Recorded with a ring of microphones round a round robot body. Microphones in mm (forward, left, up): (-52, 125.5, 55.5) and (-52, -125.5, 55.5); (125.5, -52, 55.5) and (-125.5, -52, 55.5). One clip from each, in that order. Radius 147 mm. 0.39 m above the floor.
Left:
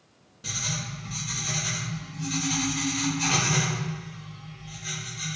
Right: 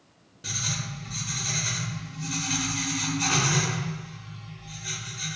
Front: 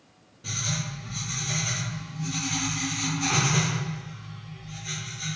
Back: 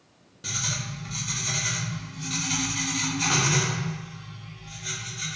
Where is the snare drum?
No snare drum in this recording.